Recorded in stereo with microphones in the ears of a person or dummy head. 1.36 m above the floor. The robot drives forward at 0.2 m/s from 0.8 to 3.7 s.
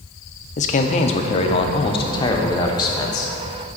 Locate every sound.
0.6 s a man speaking: 35° left (ahead or behind), 0.5 m; by 3.3 s 20° left (ahead or behind), 1.0 m